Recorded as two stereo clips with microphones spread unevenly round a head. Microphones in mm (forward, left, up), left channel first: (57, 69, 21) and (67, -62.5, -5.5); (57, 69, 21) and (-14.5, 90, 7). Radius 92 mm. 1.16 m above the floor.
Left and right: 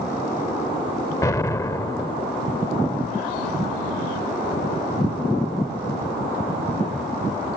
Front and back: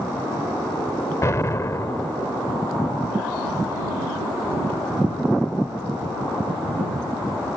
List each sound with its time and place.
1.2 s an explosion: 30° left